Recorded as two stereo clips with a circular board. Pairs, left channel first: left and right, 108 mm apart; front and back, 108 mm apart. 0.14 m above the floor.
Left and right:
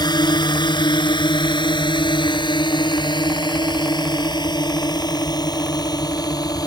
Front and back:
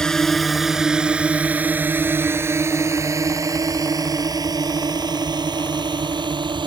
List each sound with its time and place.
0.0 s a drone: 80° left; by 6.7 s 140° left